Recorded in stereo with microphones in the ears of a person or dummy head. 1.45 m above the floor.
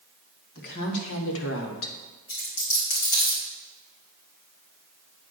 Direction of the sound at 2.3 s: 55° left (ahead or behind).